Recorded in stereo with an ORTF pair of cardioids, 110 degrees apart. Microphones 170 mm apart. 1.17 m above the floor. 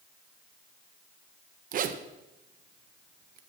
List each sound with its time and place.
1.7 s a zipper: 55° right, 0.9 m